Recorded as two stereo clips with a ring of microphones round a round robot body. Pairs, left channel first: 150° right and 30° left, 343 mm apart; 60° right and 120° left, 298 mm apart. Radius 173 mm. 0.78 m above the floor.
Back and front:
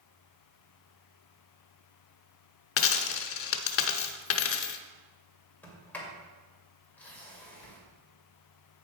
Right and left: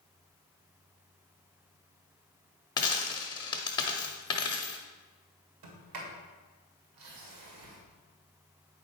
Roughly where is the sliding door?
Behind left.